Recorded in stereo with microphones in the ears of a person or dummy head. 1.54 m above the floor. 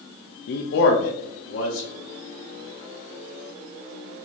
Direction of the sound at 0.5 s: 60° left (ahead or behind).